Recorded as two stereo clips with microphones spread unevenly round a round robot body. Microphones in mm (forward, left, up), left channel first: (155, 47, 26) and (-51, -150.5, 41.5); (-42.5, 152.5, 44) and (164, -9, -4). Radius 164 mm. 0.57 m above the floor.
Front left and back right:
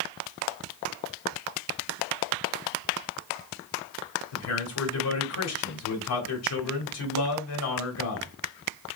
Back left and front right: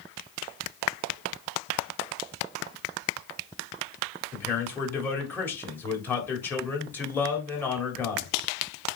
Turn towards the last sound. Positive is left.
turn(degrees=55)